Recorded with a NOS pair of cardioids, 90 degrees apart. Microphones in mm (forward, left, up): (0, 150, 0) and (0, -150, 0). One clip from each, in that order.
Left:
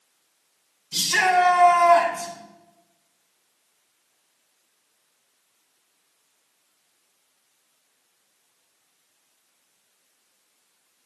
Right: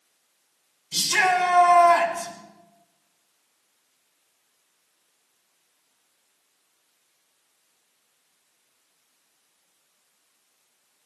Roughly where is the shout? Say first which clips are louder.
Left 1 dB; ahead.